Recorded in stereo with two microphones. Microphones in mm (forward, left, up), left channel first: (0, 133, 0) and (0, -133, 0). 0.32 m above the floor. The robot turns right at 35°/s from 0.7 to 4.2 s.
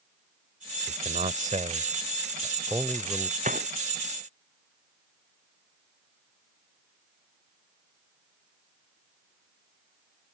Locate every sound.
0.9 s a man speaking: 30° right (ahead or behind); by 3.3 s centre (ahead or behind)
3.4 s a gunshot: 25° right (ahead or behind); by 3.7 s 35° right (ahead or behind)